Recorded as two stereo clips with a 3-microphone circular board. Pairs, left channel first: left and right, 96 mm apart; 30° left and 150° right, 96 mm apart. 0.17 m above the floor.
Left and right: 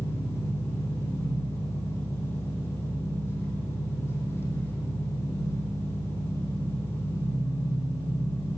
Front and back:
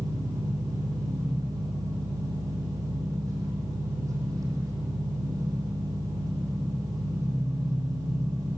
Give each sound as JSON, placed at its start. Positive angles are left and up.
{"t": 0.0, "sound": "an engine running", "azimuth_deg": 155, "distance_m": 6.0}